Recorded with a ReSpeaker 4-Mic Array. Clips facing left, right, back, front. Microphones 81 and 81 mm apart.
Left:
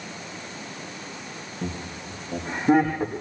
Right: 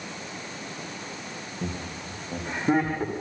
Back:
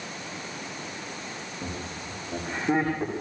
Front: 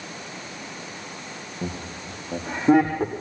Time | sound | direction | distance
1.6 | laughter | 5° right | 5.5 m